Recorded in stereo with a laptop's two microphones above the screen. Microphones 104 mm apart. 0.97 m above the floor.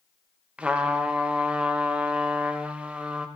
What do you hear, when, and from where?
0.6 s a trumpet: 10° right (ahead or behind), 0.6 m